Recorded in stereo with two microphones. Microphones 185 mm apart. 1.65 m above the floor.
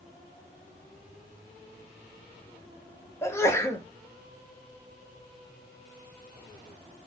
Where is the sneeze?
15° left (ahead or behind), 0.8 m.